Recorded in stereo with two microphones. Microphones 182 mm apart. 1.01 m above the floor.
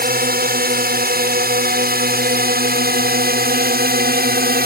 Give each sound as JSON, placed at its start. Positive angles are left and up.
{"t": 0.0, "sound": "a drone", "side_deg": -55}